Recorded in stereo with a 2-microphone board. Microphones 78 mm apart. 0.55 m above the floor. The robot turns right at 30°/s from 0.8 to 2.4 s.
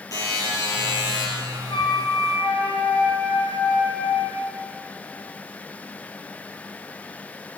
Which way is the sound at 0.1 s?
45° left (ahead or behind).